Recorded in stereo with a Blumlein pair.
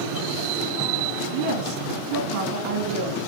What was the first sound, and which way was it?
A woman speaking, 45° right.